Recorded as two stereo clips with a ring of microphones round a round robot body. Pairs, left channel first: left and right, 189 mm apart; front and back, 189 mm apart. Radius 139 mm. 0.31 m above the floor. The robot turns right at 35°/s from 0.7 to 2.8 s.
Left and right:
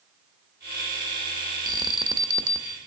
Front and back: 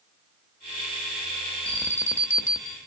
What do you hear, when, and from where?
1.7 s an alarm: 75° right, 0.5 m; by 2.8 s 35° right, 0.5 m